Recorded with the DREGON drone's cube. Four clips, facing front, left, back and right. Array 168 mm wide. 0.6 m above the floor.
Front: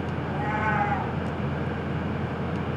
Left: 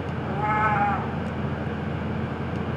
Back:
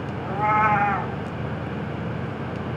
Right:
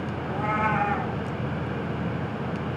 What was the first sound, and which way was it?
A cat meowing, 160° left.